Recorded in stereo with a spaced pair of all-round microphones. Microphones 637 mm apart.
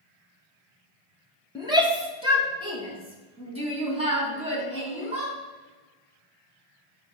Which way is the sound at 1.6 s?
5° right (ahead or behind).